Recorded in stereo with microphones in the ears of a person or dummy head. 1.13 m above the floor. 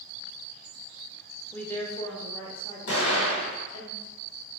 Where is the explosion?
60° left (ahead or behind), 1.9 m.